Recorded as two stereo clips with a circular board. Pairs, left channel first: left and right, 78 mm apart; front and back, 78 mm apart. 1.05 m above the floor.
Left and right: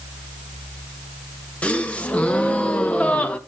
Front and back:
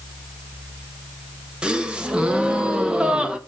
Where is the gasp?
125° left, 0.7 m.